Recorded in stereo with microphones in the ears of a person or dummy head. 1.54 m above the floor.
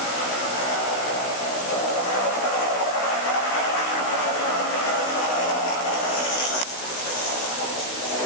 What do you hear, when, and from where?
Only background noise.